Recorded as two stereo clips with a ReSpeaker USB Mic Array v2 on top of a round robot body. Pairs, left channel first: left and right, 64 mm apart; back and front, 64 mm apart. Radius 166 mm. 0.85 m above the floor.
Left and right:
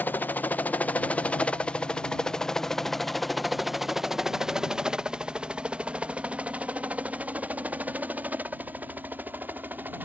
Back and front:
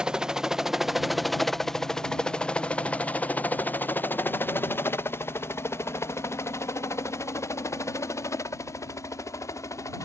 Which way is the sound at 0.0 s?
65° left.